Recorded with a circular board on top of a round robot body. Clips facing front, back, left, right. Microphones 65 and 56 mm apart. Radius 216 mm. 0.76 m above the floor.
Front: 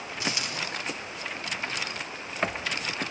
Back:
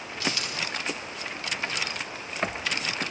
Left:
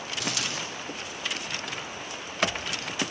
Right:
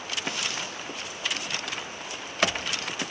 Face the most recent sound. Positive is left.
turn(degrees=70)